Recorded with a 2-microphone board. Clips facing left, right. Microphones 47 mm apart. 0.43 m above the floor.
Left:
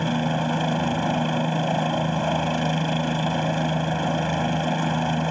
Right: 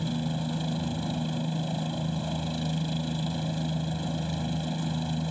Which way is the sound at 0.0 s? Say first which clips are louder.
Left 8 dB; 60° left (ahead or behind).